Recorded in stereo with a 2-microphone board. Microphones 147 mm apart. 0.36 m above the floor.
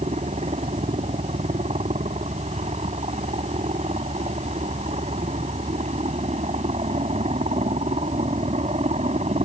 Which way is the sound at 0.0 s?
50° right (ahead or behind).